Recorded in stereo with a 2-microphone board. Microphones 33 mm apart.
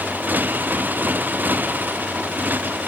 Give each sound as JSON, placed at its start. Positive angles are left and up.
{"t": 0.0, "sound": "a motorcycle", "side_deg": -70}